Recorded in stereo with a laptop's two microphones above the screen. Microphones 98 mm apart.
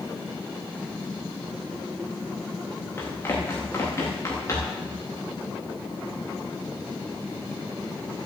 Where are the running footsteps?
25° left (ahead or behind), 7.5 m; by 4.8 s 35° left (ahead or behind), 8 m.